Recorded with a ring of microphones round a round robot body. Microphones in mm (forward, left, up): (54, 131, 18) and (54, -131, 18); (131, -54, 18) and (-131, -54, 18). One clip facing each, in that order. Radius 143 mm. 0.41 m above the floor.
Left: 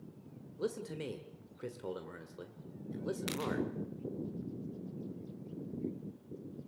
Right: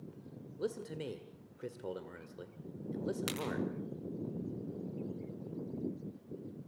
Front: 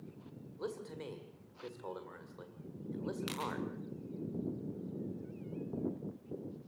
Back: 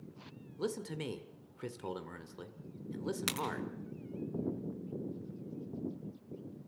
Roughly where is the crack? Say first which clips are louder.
Left 1 dB, back 2 dB; behind.